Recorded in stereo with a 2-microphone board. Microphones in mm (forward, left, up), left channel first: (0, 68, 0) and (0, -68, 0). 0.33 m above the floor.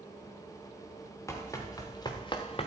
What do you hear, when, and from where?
1.3 s running footsteps: 20° left (ahead or behind), 3.5 m; by 2.7 s 50° left (ahead or behind), 1.5 m